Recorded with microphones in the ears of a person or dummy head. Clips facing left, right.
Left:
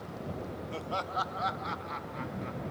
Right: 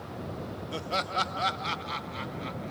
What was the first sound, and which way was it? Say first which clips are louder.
Laughter: right 4 dB; 10° right (ahead or behind).